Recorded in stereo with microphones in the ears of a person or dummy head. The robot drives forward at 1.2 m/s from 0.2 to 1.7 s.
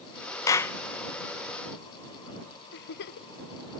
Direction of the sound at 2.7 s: 55° left (ahead or behind).